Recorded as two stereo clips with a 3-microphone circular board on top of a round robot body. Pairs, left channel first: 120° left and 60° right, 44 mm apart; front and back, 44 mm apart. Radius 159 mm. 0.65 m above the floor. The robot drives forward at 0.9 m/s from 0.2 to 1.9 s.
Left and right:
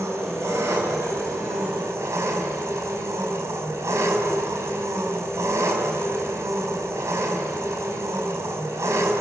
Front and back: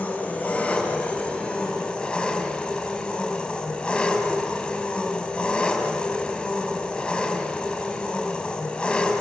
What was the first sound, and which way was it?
An engine running, 55° right.